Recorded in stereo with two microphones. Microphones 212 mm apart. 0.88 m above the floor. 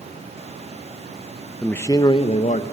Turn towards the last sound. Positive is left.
turn(degrees=40)  # may be behind; listen again after turning